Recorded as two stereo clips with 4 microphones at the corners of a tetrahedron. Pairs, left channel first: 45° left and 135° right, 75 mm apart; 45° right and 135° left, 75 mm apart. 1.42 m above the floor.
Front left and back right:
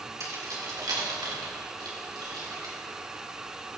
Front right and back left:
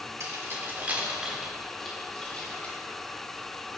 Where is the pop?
I don't hear a pop.